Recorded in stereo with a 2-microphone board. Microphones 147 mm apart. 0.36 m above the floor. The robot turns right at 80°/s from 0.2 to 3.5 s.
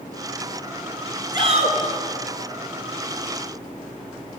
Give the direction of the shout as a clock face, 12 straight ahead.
5 o'clock.